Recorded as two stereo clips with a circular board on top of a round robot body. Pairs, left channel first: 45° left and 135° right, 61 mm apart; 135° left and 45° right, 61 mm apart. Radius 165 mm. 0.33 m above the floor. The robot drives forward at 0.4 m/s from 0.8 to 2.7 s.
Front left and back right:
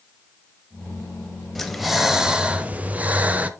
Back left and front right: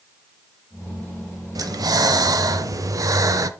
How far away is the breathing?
About 1.0 m.